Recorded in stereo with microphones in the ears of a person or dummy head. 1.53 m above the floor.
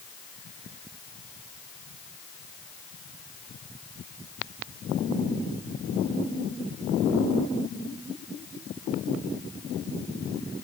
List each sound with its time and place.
Only background noise.